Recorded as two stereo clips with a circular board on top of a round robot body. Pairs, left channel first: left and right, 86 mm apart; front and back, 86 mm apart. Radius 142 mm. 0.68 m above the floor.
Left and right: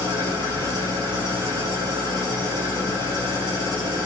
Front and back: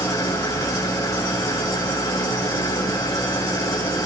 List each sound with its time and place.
0.0 s an engine running: 55° right, 6.5 m